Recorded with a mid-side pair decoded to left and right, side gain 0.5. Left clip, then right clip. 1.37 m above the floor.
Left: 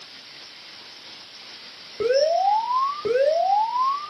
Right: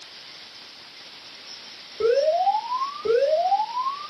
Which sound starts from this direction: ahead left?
An alarm, at 2.0 s.